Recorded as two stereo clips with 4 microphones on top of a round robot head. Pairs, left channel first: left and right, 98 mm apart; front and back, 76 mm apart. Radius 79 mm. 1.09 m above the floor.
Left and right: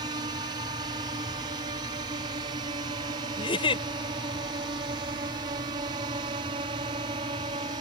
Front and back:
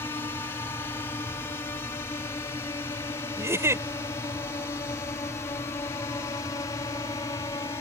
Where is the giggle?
125° left.